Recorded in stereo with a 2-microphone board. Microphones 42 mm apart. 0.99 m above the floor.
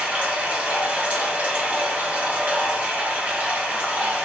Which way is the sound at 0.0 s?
35° right (ahead or behind).